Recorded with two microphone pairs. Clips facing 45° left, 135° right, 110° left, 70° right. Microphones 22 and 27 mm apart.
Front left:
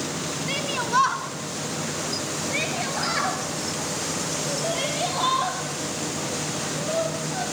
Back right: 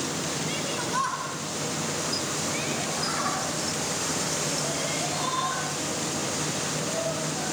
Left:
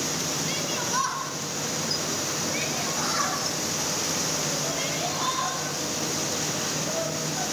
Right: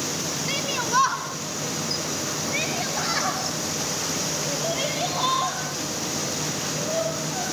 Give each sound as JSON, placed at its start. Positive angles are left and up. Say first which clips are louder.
{"t": 0.5, "sound": "a shout", "louder": "front left 9 dB, right 7 dB", "azimuth_deg": -10, "distance_m": 1.7}